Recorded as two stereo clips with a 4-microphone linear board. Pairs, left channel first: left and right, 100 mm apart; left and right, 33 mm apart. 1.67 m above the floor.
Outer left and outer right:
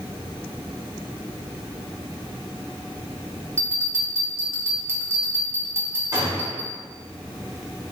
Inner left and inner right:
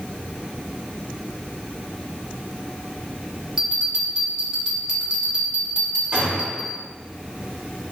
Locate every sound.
3.6 s a bell: 25° right (ahead or behind), 0.8 m
6.1 s a gunshot: 35° right (ahead or behind), 1.7 m